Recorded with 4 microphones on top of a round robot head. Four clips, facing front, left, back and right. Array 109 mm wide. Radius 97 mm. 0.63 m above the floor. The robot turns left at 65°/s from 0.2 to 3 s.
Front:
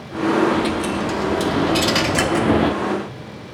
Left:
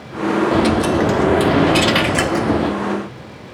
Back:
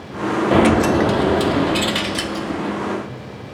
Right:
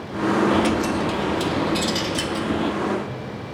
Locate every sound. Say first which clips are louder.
0.5 s a dropped coin: left 5 dB, back 6 dB; 165° left, 0.6 m; by 2.8 s 15° left, 0.6 m